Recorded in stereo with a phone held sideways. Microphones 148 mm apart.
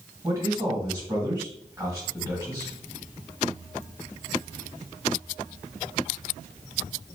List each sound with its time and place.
0.2 s a man speaking: 20° right (ahead or behind), 1.8 m